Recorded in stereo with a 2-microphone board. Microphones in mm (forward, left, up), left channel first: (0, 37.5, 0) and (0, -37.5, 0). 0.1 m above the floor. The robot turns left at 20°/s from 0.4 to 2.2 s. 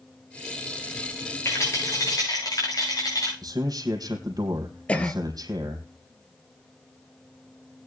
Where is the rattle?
35° left (ahead or behind), 8 m; by 3.3 s 50° left (ahead or behind), 8 m.